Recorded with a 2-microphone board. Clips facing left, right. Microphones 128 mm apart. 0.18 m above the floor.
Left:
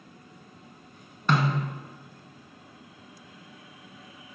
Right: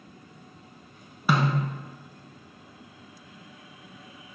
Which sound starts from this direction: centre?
A snare drum, at 1.3 s.